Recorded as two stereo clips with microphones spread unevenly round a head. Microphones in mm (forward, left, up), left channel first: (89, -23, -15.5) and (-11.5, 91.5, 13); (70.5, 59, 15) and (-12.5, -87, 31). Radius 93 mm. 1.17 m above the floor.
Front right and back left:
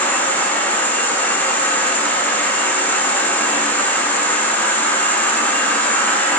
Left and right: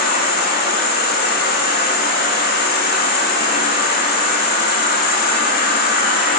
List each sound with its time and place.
0.0 s an insect: 35° left, 0.8 m